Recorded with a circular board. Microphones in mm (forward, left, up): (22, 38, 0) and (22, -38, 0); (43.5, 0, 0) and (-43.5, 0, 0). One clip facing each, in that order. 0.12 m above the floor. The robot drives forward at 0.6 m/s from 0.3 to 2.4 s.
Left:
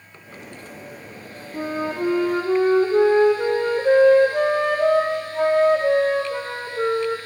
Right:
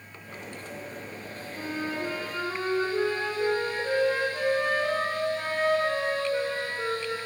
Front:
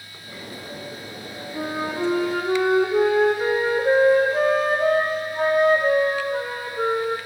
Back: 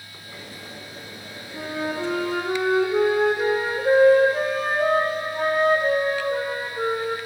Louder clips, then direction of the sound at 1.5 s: Left 7 dB, front 1 dB; 65° left.